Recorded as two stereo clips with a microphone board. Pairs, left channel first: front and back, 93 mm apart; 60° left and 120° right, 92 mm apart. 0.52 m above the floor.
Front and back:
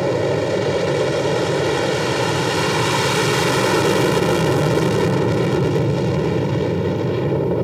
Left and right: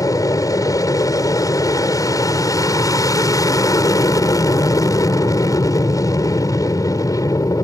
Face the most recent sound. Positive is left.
turn(degrees=90)